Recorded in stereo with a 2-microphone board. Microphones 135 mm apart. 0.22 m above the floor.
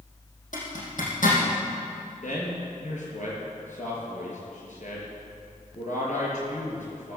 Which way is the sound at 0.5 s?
70° left (ahead or behind).